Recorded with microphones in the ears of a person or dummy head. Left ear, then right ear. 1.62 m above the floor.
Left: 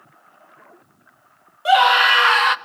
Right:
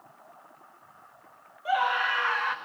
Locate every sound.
1.6 s a scream: 30° left (ahead or behind), 0.6 m